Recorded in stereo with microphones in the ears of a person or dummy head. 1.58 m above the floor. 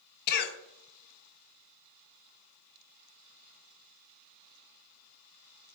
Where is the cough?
60° left (ahead or behind), 1.1 m.